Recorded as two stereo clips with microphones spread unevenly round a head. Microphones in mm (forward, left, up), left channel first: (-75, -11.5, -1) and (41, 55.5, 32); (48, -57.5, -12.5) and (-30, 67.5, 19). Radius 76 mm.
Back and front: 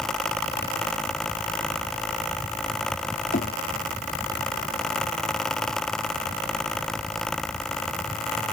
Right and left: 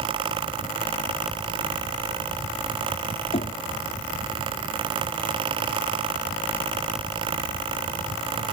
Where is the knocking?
110° right.